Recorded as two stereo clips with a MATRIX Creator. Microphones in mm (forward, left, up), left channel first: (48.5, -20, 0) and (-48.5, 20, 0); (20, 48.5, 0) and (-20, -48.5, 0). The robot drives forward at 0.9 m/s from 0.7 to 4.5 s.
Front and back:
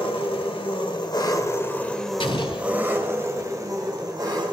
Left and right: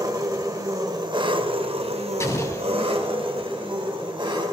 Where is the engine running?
55° right, 1.5 m; by 4.5 s 155° right, 3 m.